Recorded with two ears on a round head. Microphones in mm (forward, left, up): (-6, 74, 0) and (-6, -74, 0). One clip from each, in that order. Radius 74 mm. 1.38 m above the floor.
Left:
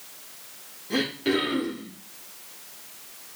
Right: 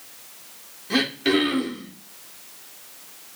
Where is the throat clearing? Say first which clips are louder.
Right 4 dB; 50° right (ahead or behind), 1.7 m.